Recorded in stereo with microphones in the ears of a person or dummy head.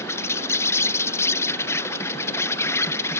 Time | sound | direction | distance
0.0 | an insect | 15° left (ahead or behind) | ?